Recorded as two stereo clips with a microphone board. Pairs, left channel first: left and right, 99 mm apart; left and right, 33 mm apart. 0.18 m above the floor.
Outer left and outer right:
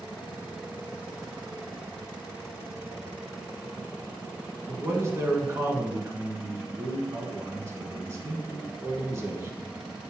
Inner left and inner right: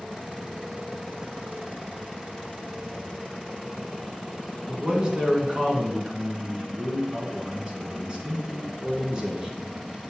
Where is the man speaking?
30° right (ahead or behind), 1.6 m.